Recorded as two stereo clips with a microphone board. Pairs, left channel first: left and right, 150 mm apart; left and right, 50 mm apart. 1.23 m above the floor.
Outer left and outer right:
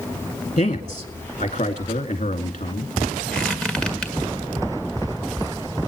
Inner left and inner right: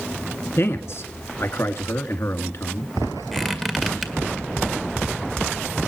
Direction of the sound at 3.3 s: 5° left (ahead or behind).